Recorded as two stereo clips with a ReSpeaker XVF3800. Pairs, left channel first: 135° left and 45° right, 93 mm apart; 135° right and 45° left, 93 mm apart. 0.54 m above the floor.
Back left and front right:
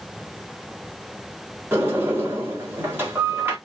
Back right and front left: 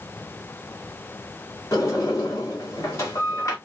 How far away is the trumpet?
I don't hear a trumpet.